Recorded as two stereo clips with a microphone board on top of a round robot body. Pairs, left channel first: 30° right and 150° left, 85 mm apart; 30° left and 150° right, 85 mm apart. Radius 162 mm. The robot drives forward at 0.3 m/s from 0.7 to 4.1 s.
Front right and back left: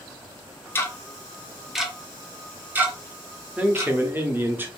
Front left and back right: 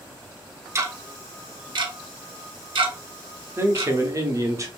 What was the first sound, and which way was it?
Ticking, 95° right.